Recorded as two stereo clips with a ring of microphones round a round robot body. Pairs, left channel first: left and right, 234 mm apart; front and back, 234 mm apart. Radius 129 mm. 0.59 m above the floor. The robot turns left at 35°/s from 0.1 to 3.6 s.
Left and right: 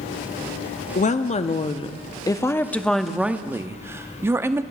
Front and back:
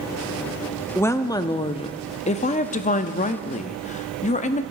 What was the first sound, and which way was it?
A woman speaking, 75° left.